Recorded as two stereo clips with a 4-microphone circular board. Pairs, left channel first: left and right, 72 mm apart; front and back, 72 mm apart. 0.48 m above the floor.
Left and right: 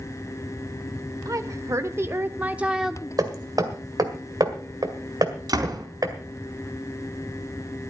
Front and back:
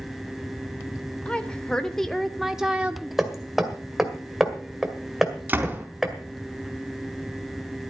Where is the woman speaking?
70° right, 1.4 m; by 3.0 s 170° left, 0.8 m.